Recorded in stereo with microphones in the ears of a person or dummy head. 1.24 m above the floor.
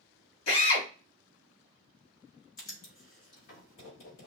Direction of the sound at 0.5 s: 80° left.